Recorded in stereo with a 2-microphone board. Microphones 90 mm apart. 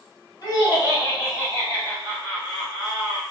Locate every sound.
0.4 s laughter: 45° left (ahead or behind), 1.6 m; by 3.2 s 10° right (ahead or behind), 1.3 m